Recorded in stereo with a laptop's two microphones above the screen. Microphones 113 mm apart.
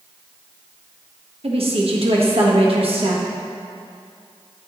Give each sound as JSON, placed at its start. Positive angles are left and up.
{"t": 1.4, "sound": "a woman speaking", "side_deg": -65, "distance_m": 1.2}